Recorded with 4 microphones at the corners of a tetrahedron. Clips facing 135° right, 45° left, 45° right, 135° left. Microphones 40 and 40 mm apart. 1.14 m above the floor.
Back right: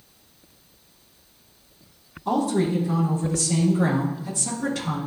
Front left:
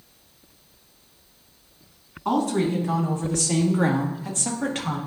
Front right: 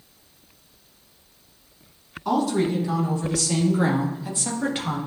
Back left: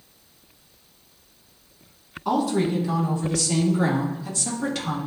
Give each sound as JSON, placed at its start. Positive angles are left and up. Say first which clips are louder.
{"t": 2.2, "sound": "a woman speaking", "louder": "even, even", "azimuth_deg": 50, "distance_m": 2.5}